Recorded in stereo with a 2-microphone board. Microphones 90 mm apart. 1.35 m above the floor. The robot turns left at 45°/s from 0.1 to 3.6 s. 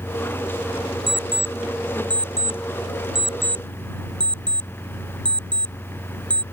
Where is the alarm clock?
75° right (ahead or behind); by 6.4 s 10° left (ahead or behind).